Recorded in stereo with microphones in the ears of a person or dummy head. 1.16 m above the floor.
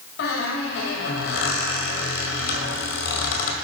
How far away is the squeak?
About 1.6 m.